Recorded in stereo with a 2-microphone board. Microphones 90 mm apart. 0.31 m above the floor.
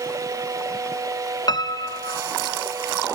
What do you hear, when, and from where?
1.5 s a piano: 50° left (ahead or behind), 0.7 m